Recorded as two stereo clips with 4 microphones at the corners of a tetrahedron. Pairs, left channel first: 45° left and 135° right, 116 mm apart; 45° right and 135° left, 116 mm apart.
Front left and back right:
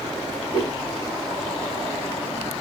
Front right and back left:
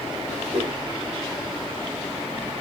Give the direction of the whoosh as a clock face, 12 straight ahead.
9 o'clock.